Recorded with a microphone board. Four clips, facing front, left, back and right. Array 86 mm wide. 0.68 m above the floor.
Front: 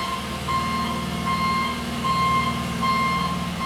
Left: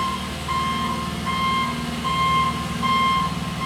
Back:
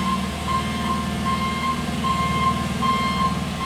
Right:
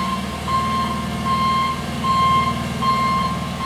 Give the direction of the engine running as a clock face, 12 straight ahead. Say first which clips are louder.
Right 3 dB, back 3 dB; 3 o'clock.